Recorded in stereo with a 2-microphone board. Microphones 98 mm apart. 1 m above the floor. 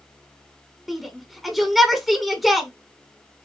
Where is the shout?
Centre (ahead or behind), 1.2 m.